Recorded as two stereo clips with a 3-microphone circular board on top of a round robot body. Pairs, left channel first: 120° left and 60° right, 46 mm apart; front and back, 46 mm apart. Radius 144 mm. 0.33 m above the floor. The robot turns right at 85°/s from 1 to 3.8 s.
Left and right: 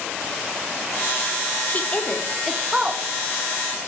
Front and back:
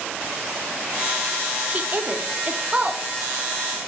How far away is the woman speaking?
About 1.5 m.